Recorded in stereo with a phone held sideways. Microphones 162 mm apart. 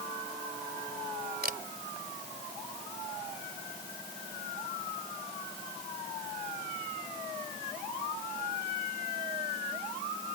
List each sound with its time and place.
1.4 s a camera shutter: 75° right (ahead or behind)